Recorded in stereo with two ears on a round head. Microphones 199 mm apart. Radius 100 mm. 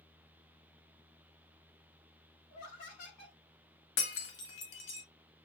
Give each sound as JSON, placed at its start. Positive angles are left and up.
{"t": 2.5, "sound": "laughter", "side_deg": 40, "distance_m": 4.0}
{"t": 4.0, "sound": "breaking glass", "side_deg": 60, "distance_m": 1.5}